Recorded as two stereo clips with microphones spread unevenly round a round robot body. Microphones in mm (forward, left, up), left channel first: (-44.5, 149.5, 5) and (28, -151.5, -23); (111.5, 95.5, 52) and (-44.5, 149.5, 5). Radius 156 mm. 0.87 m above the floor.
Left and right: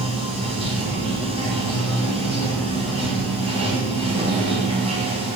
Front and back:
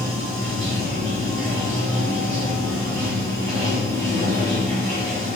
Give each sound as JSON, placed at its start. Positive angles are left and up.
{"t": 0.0, "sound": "running water", "azimuth_deg": -150, "distance_m": 1.9}